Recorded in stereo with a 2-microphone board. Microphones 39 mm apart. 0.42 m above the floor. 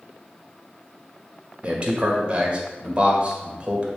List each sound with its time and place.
1.6 s a man speaking: 30° right (ahead or behind), 1.7 m